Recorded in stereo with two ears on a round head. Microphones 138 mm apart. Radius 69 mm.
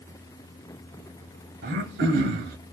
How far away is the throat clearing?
About 0.8 m.